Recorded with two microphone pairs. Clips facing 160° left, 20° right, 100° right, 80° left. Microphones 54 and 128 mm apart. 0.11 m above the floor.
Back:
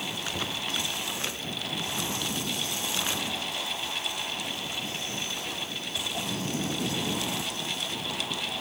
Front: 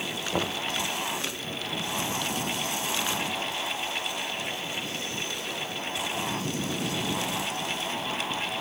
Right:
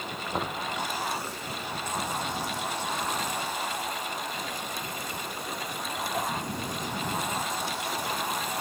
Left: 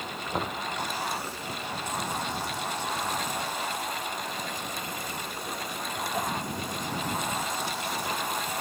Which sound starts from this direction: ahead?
Knocking, at 0.3 s.